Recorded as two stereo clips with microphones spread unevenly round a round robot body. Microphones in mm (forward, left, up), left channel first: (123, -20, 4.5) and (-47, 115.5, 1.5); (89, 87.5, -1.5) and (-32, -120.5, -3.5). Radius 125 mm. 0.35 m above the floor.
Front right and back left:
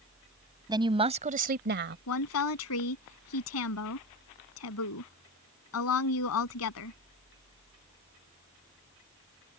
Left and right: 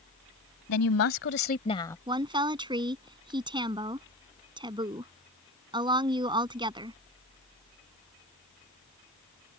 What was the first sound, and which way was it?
A woman speaking, 70° left.